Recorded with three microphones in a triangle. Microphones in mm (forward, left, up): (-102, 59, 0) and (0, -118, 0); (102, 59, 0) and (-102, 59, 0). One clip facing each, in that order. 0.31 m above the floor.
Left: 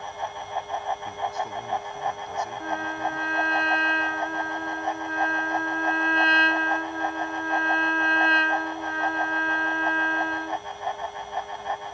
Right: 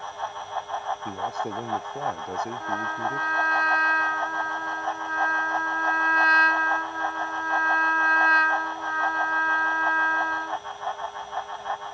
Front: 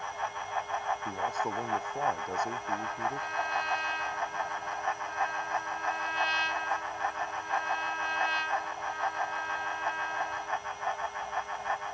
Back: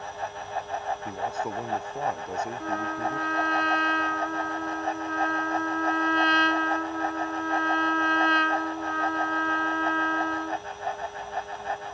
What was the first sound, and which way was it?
A man speaking, 100° right.